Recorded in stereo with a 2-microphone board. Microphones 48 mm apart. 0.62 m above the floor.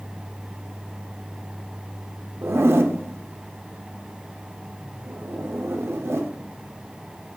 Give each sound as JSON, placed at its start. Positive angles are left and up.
{"t": 2.4, "sound": "a zipper", "side_deg": -60, "distance_m": 0.5}